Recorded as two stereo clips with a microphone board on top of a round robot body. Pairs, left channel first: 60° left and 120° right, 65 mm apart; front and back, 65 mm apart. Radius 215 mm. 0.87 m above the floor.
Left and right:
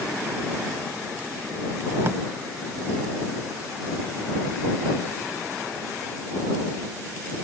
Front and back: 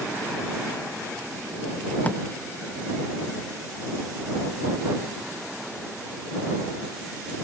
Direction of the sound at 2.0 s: 65° right.